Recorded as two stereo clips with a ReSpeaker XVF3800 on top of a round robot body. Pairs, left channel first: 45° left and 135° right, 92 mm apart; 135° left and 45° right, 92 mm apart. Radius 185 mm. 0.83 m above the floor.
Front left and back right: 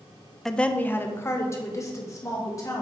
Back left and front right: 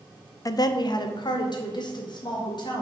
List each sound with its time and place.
0.5 s a woman speaking: 130° left, 0.6 m; by 2.8 s 100° left, 2 m